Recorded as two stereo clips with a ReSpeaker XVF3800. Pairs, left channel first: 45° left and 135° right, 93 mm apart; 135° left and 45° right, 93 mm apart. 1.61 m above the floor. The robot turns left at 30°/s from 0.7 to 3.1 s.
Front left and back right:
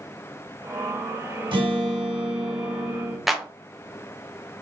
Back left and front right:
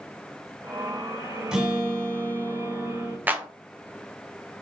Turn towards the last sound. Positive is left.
turn(degrees=-50)